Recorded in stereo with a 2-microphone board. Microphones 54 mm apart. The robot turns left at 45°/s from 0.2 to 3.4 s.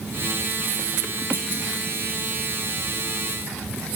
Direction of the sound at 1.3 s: 50° left (ahead or behind).